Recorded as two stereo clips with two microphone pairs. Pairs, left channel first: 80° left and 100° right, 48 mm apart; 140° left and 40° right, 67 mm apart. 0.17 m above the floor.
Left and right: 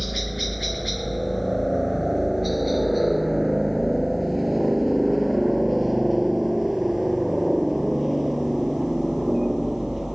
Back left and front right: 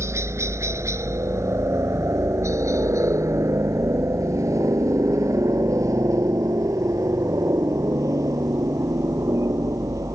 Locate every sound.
0.0 s a helicopter: 10° right; by 10.2 s 15° right